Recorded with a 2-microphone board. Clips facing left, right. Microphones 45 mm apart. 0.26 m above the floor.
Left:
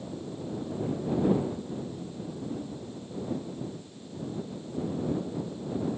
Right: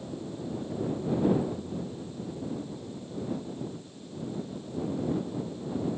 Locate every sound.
1.5 s a ringtone: 15° right (ahead or behind)